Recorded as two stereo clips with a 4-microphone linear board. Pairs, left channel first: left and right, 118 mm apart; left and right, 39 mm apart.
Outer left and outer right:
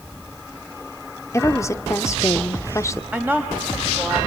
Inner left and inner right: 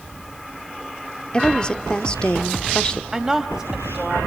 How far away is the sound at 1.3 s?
About 1.1 m.